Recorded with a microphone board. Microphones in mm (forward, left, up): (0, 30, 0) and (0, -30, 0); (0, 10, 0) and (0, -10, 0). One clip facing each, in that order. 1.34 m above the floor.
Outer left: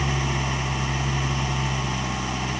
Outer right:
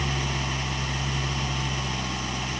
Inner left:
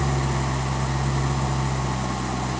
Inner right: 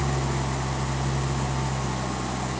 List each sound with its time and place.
0.0 s an engine running: 15° left (ahead or behind)